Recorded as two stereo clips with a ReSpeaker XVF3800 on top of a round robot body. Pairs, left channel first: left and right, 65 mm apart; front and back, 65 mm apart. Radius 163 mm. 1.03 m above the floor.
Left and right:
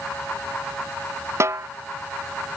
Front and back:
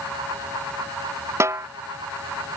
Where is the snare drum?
135° right.